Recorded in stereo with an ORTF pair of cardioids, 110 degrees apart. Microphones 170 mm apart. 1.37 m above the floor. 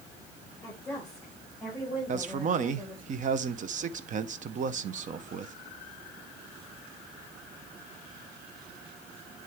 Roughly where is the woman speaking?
Ahead.